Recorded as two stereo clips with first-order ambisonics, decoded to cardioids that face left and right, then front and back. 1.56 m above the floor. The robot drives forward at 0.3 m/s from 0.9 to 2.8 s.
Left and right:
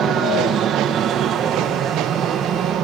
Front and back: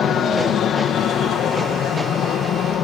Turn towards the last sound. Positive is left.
turn(degrees=-45)